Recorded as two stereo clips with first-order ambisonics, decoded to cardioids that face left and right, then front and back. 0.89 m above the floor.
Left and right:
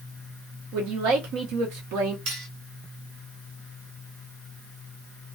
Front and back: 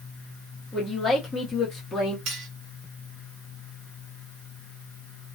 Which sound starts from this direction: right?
A man speaking, at 0.7 s.